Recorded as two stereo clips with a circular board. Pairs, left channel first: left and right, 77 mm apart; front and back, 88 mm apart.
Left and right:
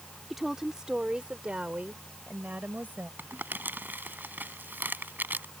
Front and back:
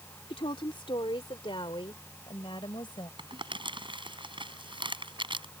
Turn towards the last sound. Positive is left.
turn(degrees=-155)